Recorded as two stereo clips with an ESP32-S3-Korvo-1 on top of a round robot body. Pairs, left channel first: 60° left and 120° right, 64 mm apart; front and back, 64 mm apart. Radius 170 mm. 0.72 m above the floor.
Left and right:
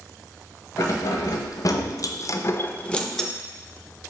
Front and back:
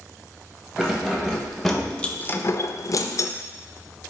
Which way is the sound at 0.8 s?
100° left.